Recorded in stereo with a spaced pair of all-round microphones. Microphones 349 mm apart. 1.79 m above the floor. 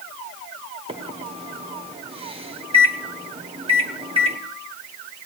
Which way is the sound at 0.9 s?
15° right (ahead or behind).